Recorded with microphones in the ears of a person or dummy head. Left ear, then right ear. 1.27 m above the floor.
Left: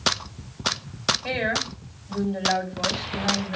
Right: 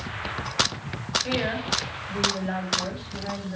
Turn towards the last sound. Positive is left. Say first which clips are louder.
# left 1 dB
turn(degrees=80)